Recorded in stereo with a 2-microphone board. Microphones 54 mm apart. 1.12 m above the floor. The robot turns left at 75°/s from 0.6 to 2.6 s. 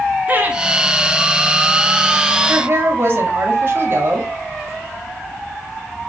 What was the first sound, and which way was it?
Laughter, 35° right (ahead or behind).